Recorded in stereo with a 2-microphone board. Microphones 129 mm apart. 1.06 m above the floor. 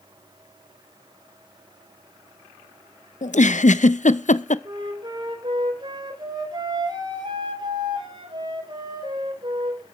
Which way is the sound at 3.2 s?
70° left (ahead or behind).